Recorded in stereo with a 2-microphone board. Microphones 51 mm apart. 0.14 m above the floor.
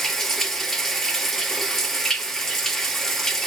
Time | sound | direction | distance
0.0 | running water | 10° left (ahead or behind) | 0.7 m